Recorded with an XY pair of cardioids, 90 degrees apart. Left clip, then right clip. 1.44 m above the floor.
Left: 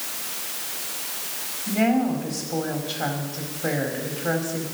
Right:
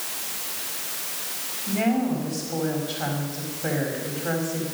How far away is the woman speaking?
About 3.5 m.